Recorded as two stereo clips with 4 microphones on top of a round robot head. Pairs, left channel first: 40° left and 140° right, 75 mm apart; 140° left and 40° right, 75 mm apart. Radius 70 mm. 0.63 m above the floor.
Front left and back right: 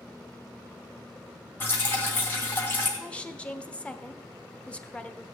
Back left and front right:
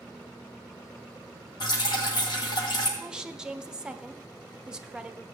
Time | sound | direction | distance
1.6 | dripping | 105° left | 2.5 m
3.0 | a woman speaking | 10° left | 1.1 m